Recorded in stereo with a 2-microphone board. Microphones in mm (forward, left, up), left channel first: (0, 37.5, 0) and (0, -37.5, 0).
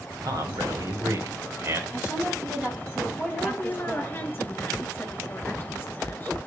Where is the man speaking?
55° right (ahead or behind), 2.5 m; by 1.8 s 35° right (ahead or behind), 1.9 m.